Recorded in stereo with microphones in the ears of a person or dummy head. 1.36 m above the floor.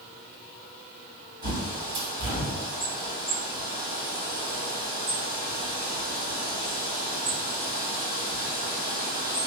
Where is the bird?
30° right (ahead or behind), 1.6 m.